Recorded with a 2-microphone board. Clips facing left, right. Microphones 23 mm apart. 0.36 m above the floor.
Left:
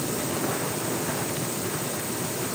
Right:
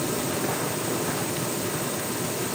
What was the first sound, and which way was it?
Only background noise.